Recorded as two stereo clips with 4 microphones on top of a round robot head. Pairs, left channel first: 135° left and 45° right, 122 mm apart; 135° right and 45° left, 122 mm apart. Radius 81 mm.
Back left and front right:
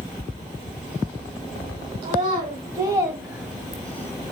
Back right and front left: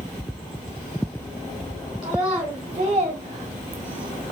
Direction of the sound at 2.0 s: 15° right.